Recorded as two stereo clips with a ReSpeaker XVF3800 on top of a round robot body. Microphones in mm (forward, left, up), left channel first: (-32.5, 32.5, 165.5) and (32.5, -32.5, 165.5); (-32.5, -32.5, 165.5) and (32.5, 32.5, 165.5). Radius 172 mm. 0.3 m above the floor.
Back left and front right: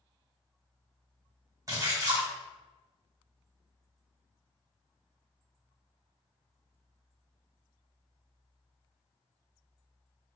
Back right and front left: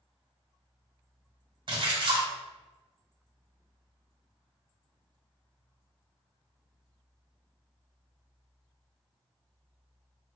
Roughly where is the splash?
Ahead.